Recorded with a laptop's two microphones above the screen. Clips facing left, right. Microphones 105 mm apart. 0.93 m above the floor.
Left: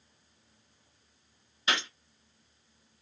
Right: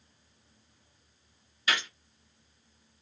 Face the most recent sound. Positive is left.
turn(degrees=25)  # may be behind; listen again after turning